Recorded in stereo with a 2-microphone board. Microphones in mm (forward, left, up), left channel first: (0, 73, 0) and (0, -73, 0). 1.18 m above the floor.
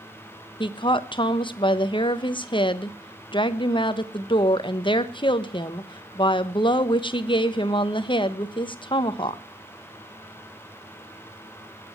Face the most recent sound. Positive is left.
turn(degrees=35)  # may be behind; listen again after turning